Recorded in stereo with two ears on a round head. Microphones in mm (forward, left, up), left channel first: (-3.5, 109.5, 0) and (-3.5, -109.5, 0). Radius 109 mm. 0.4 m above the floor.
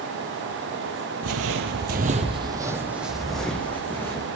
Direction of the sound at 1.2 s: 65° right (ahead or behind).